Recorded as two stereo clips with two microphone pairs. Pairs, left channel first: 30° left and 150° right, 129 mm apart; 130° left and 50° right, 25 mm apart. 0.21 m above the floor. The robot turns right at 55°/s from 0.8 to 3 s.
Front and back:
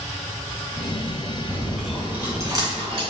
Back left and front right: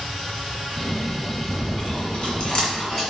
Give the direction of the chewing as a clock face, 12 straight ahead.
9 o'clock.